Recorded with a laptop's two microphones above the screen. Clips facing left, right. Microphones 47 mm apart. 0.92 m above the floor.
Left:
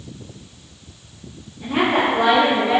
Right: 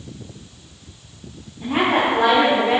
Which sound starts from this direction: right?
A woman speaking, at 1.6 s.